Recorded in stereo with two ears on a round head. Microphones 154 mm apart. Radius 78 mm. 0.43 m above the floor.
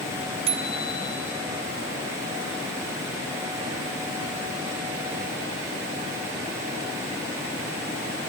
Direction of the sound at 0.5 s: 35° right (ahead or behind).